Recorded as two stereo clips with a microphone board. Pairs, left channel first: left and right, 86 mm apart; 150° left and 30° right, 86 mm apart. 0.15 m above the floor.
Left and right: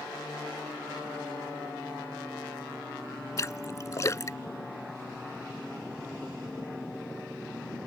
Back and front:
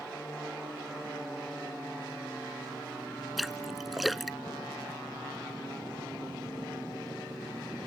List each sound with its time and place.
3.4 s a splash: 60° left